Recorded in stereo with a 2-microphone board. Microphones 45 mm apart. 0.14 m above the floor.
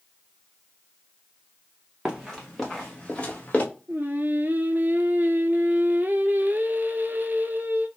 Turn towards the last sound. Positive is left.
turn(degrees=-45)  # may be behind; listen again after turning